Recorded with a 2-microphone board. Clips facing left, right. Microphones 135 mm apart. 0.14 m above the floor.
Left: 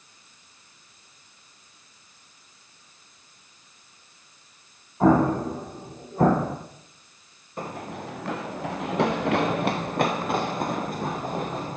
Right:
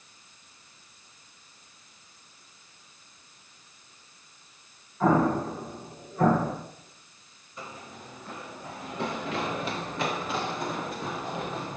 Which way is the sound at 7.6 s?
55° left (ahead or behind).